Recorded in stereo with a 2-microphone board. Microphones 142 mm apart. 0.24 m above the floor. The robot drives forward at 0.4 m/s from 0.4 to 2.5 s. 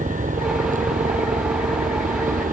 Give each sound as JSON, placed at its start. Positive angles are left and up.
{"t": 0.0, "sound": "a helicopter", "side_deg": -75}